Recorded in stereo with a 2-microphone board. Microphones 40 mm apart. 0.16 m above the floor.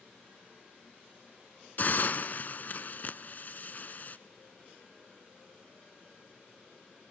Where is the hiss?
45° left (ahead or behind), 0.7 m.